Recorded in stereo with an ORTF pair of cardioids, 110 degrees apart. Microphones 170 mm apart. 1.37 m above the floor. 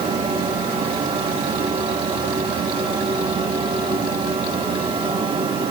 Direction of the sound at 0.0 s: 35° right.